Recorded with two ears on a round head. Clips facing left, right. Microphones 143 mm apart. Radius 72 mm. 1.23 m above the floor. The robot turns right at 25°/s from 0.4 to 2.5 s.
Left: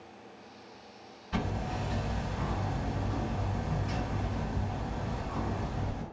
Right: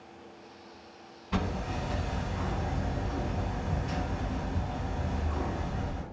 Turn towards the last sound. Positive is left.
turn(degrees=-40)  # may be behind; listen again after turning